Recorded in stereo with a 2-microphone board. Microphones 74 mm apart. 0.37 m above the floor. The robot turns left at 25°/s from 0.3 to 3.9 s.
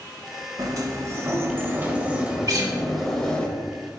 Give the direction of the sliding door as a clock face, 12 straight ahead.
4 o'clock.